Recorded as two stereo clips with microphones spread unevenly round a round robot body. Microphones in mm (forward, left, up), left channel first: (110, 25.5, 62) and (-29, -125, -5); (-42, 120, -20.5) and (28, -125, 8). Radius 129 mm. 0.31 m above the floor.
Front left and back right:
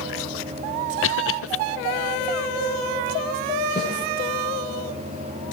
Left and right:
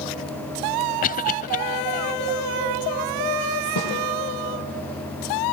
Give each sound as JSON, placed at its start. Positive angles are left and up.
{"t": 1.0, "sound": "a cough", "azimuth_deg": 70, "distance_m": 1.2}
{"t": 3.8, "sound": "a snare drum", "azimuth_deg": 110, "distance_m": 9.5}